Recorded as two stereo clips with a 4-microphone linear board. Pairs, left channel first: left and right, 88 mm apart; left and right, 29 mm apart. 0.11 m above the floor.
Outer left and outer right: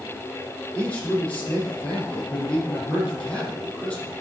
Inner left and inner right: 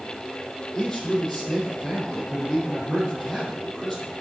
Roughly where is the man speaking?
Centre.